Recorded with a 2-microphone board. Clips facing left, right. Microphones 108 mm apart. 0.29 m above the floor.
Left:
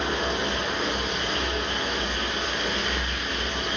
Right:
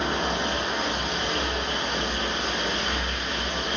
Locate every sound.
0.0 s running water: 30° right (ahead or behind), 0.8 m